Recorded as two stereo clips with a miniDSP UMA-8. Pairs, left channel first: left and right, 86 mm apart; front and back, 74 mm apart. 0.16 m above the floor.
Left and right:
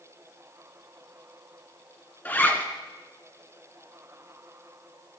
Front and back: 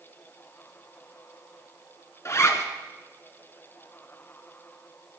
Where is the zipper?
30° left, 2 m.